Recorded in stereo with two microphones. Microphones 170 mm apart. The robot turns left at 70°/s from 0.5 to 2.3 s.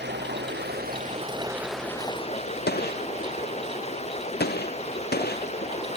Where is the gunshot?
75° left (ahead or behind).